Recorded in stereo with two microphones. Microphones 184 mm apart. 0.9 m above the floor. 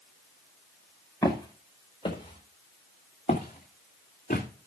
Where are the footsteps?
20° left (ahead or behind), 3.5 m; by 4.5 s 55° left (ahead or behind), 3 m.